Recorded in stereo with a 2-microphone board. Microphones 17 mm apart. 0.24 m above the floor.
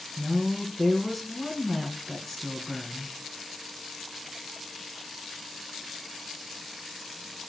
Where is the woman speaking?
15° left (ahead or behind), 2.5 m.